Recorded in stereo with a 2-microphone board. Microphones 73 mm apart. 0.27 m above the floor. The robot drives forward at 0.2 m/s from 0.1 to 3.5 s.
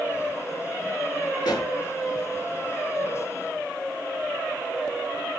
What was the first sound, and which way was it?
A pop, 75° left (ahead or behind).